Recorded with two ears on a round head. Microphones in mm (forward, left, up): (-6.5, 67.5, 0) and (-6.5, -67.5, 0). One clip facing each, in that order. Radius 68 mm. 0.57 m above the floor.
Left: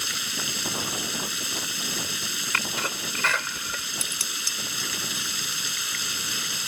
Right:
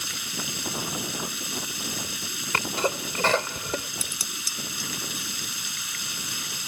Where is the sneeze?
25° right (ahead or behind).